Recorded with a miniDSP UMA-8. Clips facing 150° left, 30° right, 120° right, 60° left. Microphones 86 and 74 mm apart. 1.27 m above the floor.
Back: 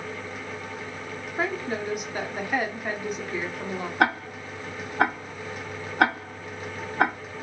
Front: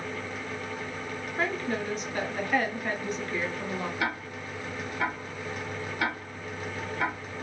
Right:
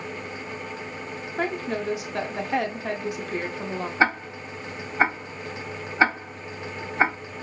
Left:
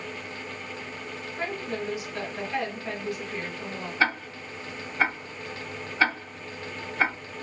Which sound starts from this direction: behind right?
A woman speaking, at 1.4 s.